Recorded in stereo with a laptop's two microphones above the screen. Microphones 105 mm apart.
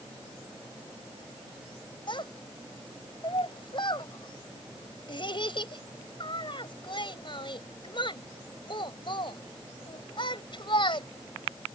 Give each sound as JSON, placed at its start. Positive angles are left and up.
{"t": 2.1, "sound": "a child speaking", "side_deg": 50}